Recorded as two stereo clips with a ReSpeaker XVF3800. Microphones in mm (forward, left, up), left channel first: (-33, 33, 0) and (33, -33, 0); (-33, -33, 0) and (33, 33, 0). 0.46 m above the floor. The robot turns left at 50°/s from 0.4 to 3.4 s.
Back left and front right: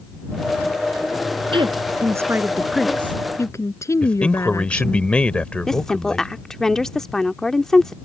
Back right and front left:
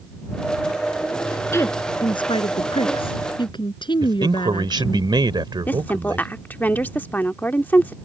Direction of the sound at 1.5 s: 75° right.